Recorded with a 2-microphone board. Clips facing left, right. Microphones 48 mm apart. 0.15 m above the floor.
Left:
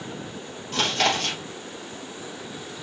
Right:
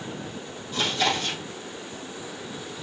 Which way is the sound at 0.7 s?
75° left (ahead or behind).